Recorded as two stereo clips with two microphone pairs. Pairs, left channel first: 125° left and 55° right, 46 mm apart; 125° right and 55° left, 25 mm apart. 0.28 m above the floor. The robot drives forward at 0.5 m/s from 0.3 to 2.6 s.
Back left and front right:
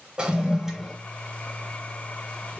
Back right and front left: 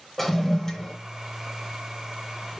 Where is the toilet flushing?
70° right, 0.8 m; by 1.0 s 130° right, 0.8 m.